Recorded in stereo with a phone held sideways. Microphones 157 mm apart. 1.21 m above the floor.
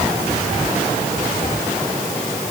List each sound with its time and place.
Only background noise.